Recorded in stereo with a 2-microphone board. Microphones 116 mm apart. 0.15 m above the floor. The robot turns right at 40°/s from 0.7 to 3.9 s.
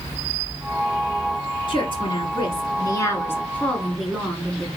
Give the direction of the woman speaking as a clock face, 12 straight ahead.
9 o'clock.